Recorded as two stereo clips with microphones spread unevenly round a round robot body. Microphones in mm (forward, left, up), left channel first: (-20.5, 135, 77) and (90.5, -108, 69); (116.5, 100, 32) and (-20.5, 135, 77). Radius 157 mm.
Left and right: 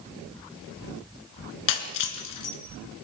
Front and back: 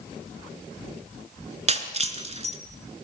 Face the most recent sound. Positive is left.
turn(degrees=120)